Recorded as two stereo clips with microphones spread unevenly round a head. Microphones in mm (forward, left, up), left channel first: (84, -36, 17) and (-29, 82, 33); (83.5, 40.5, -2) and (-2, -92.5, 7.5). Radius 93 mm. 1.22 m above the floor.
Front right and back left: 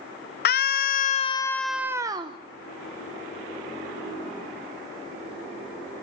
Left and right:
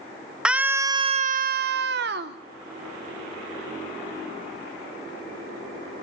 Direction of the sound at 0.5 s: 35° right.